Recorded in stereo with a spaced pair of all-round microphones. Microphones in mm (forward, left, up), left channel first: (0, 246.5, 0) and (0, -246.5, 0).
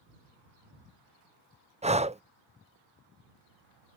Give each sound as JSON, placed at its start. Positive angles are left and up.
{"t": 1.8, "sound": "breathing", "side_deg": -15}